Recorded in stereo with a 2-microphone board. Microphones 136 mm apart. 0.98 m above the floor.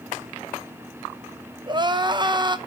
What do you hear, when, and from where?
1.7 s crying: 35° right (ahead or behind), 0.8 m